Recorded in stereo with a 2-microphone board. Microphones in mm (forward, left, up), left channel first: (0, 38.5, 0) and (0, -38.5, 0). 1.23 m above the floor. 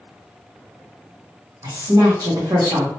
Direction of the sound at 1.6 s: 70° right (ahead or behind).